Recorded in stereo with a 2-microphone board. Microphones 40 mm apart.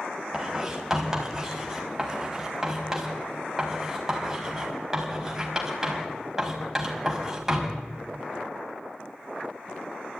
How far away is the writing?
About 5 m.